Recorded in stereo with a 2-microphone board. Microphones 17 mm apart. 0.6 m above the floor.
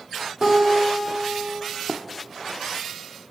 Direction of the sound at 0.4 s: 20° right (ahead or behind).